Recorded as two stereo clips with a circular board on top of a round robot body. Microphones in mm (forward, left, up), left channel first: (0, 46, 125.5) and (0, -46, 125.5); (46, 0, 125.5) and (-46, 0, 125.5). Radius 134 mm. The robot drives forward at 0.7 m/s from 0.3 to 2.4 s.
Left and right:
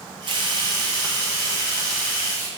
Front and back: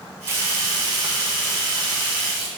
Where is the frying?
115° right, 0.8 m; by 2.5 s 160° right, 1.9 m.